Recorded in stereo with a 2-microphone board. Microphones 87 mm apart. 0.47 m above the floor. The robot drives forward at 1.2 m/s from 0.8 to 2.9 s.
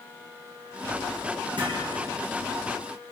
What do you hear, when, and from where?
1.6 s hammering: 70° right (ahead or behind), 10 m; by 1.9 s 65° right (ahead or behind), 10 m